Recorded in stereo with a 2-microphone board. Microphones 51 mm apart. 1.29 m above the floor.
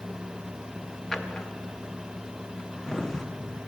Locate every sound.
1.1 s a drawer: 10° left (ahead or behind), 0.9 m